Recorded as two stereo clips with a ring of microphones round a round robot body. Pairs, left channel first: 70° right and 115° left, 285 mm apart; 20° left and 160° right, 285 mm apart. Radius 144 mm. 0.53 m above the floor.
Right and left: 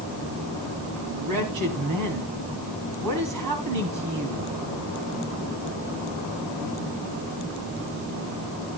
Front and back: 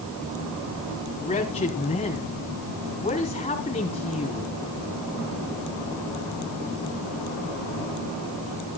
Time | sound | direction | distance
1.2 | a man speaking | 90° left | 3.5 m